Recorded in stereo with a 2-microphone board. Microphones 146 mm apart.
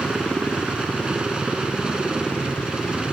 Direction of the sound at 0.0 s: 5° right (ahead or behind).